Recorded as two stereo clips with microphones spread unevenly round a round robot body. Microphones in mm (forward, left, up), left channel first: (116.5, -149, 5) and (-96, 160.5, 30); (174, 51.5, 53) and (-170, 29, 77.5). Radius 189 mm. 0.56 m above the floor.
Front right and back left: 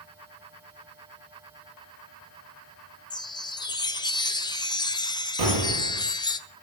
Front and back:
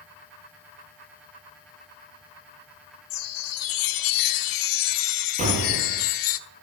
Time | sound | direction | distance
3.1 | a chime | 20° left | 0.9 m
5.4 | an explosion | 115° left | 7 m